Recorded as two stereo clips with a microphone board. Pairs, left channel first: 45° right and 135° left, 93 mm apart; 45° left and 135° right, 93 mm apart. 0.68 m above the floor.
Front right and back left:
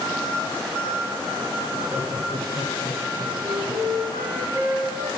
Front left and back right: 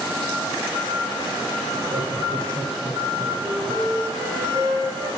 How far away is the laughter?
About 3 m.